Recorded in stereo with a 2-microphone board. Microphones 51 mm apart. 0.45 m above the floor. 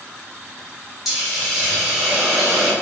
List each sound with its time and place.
1.1 s a hiss: 10° right (ahead or behind), 1.3 m